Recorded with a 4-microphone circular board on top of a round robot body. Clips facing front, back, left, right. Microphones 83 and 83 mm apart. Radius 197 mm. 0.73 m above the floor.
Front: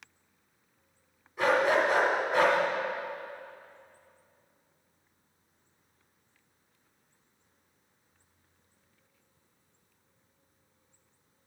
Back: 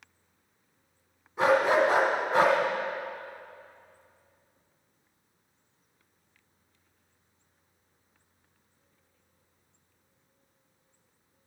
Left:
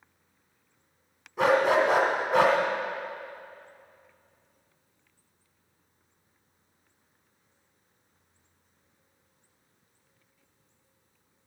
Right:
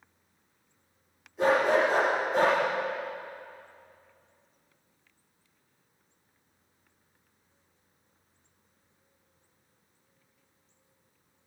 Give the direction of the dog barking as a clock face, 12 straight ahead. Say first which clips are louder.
Back 2 dB, left 1 dB; 8 o'clock.